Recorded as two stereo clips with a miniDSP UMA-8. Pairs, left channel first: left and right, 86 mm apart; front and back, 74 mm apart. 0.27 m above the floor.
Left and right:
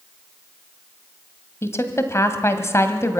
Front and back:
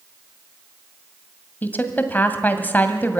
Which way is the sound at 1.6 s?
50° left.